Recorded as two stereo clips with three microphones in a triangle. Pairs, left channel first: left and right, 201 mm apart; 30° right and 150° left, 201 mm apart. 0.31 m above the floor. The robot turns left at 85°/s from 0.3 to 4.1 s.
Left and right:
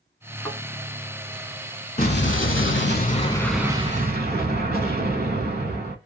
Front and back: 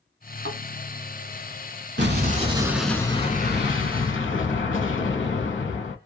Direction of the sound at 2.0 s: 130° left.